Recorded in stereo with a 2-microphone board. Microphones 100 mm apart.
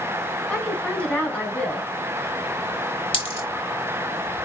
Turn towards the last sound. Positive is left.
turn(degrees=65)  # may be behind; listen again after turning